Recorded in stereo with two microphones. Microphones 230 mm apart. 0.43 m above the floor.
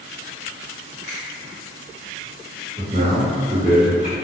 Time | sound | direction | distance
1.0 | a finger snap | 15° right (ahead or behind) | 2.0 m
2.8 | a man speaking | 25° right (ahead or behind) | 1.5 m